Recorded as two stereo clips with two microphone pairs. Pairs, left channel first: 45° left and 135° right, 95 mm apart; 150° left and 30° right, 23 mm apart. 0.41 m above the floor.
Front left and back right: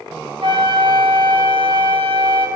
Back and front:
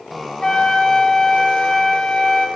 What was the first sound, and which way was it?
A flute, 150° right.